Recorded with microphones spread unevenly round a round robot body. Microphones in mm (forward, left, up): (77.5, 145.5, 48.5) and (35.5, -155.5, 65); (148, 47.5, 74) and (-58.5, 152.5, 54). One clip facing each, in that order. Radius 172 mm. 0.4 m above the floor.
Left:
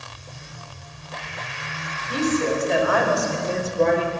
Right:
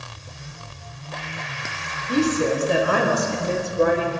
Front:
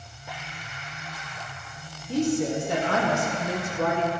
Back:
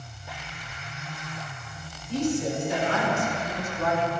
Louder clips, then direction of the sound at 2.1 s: Right 2 dB, front 2 dB; 65° right.